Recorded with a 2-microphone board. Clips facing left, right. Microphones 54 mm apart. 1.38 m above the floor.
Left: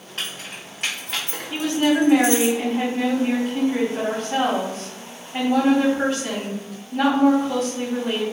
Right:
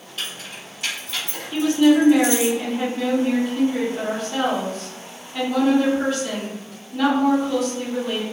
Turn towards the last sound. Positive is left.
turn(degrees=40)  # may be behind; listen again after turning